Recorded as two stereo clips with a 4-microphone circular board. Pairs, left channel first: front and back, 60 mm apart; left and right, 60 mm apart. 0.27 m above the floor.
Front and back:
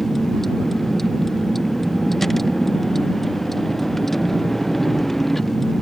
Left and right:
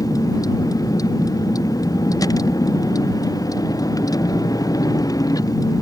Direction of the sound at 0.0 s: 90° left.